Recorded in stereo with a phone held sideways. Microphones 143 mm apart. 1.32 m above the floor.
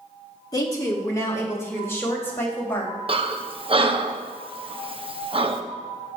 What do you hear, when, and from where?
0.5 s a woman speaking: 25° left (ahead or behind), 1.7 m; by 2.9 s 15° left (ahead or behind), 3 m
3.1 s breathing: 40° right (ahead or behind), 0.6 m